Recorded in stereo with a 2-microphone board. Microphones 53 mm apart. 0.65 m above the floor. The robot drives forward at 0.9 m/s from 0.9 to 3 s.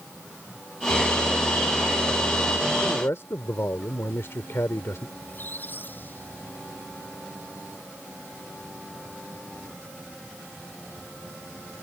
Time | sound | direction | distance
2.8 | a man speaking | 60° left (ahead or behind) | ?
5.2 | a squeak | 40° left (ahead or behind) | ?